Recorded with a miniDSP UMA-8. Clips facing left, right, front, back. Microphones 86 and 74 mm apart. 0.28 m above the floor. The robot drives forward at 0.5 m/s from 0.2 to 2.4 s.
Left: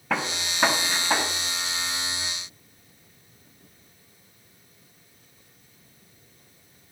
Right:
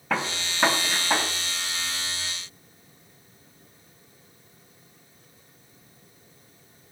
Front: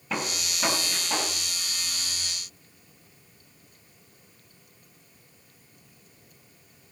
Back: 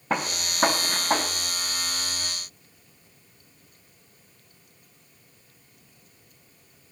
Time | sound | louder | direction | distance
0.1 | a gunshot | even, back 4 dB | straight behind | 1.9 m